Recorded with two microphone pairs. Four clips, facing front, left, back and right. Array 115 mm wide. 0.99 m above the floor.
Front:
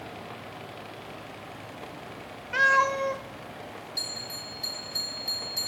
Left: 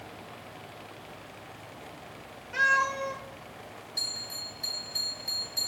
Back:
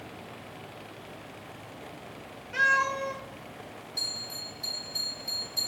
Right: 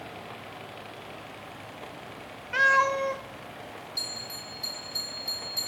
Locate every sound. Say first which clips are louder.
2.5 s a cat meowing: right 4 dB, front 3 dB; 45° right, 1.4 m
4.0 s a bell: right 3 dB, front 2 dB; 15° left, 6 m